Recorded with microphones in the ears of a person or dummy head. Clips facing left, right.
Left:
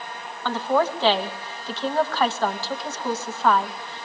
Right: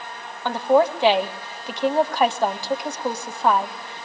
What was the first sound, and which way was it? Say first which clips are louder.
A woman speaking: right 5 dB; 10° right (ahead or behind).